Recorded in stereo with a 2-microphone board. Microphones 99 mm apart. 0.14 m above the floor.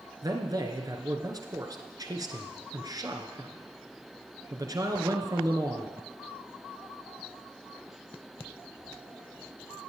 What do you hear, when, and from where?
0.2 s a man speaking: 40° right (ahead or behind), 1.7 m